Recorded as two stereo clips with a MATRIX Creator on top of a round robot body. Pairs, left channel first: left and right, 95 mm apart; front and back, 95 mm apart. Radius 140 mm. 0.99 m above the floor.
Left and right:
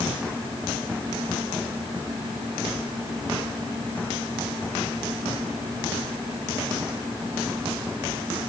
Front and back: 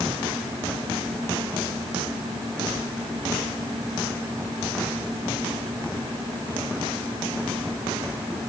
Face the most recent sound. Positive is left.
No sound to turn to.